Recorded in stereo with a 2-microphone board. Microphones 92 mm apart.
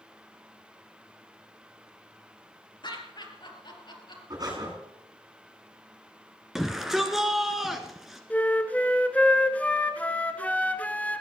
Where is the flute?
15° left (ahead or behind), 0.9 m.